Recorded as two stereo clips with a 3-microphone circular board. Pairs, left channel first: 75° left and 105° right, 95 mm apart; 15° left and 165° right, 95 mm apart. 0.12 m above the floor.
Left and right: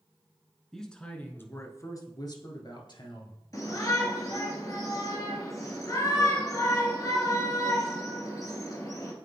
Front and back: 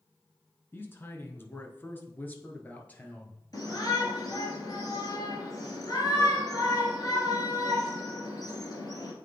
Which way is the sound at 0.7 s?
5° right.